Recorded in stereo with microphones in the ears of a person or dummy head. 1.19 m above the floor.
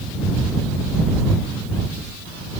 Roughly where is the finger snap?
I don't hear a finger snap.